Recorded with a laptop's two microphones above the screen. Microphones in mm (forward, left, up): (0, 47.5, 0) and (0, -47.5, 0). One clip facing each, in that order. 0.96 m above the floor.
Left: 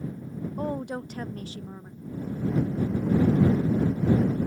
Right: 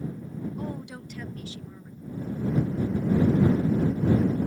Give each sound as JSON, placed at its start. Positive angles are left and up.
{"t": 0.6, "sound": "a woman speaking", "side_deg": 45}